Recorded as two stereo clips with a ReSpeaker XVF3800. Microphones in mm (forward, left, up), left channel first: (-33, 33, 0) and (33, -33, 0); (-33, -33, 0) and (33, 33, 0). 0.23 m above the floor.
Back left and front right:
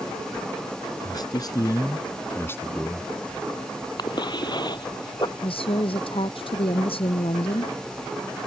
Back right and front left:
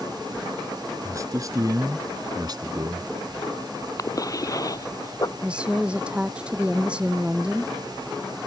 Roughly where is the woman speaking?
Behind left.